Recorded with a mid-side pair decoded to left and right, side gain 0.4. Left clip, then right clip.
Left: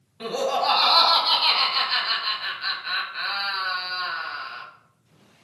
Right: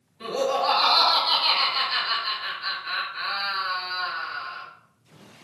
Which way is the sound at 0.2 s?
60° left.